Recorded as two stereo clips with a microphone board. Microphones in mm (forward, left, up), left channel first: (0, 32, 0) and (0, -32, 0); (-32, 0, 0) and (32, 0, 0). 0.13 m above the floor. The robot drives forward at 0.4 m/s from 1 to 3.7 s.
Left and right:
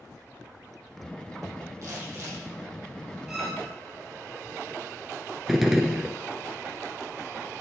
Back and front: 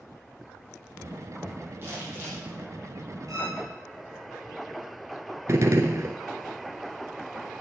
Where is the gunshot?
5° right, 1.0 m.